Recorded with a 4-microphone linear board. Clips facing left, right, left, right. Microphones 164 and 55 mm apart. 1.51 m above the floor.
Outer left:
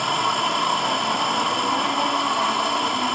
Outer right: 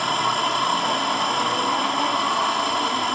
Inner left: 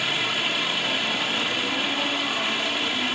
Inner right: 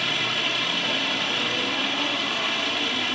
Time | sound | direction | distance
0.0 | running water | centre (ahead or behind) | ?